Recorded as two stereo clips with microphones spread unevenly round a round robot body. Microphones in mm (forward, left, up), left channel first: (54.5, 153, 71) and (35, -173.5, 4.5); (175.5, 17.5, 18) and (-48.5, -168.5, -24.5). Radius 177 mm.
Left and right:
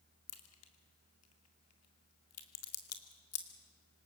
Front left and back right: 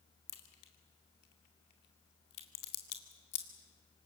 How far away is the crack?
About 2.5 m.